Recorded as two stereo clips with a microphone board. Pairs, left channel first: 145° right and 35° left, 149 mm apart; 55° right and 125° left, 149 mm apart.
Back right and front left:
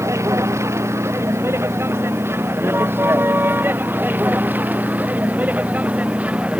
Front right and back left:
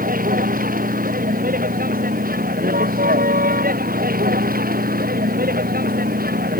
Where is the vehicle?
105° left; by 6.6 s 115° left.